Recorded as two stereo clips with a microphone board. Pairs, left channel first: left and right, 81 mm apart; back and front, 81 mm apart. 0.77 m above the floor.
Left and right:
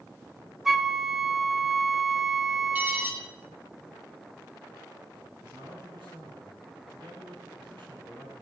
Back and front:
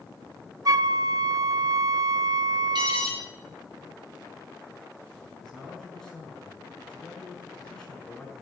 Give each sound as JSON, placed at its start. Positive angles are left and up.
{"t": 0.7, "sound": "a flute", "azimuth_deg": 0, "distance_m": 0.5}
{"t": 2.8, "sound": "an alarm", "azimuth_deg": -20, "distance_m": 5.0}
{"t": 5.4, "sound": "a man speaking", "azimuth_deg": -100, "distance_m": 7.0}